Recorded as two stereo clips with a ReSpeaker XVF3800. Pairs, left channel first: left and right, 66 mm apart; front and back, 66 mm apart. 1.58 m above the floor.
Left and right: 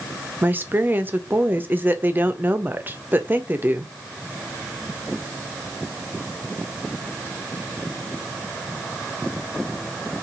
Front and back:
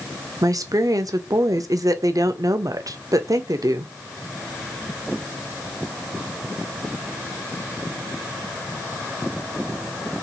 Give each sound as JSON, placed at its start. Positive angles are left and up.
{"t": 0.4, "sound": "a woman speaking", "azimuth_deg": -150, "distance_m": 0.5}